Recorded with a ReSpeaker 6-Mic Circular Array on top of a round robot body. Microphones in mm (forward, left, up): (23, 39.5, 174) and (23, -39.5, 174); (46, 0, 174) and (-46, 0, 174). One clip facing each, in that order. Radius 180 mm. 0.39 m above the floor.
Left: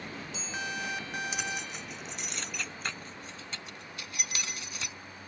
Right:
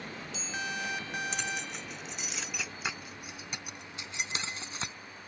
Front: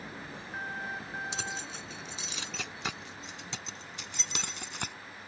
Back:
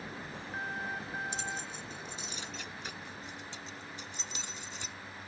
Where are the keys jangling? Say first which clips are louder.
Even, even; 5° left; by 5.0 s 30° right.